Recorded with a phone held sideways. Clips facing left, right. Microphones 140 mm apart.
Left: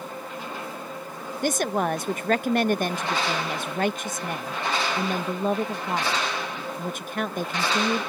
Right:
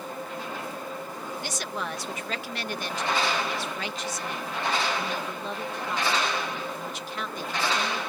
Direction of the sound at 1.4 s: 50° left (ahead or behind).